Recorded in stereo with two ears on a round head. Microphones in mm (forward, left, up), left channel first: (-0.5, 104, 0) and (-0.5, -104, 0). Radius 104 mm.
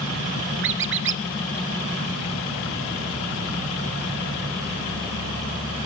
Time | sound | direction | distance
0.6 | a squeak | 55° right (ahead or behind) | 0.6 m